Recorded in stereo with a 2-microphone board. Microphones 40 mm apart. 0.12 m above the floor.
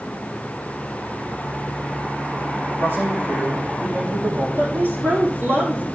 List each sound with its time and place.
2.8 s a man speaking: 75° right (ahead or behind), 7 m
4.6 s a woman speaking: 70° right (ahead or behind), 5 m